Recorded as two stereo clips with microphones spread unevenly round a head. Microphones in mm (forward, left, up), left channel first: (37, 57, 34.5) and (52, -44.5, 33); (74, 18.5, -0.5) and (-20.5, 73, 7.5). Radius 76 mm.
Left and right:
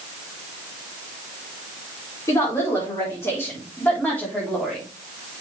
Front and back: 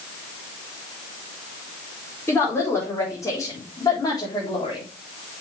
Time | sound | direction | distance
2.3 | a woman speaking | 40° left | 4.5 m